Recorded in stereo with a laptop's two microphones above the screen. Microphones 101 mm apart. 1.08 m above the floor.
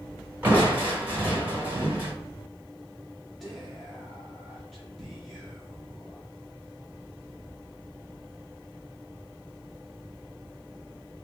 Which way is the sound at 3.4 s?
Centre (ahead or behind).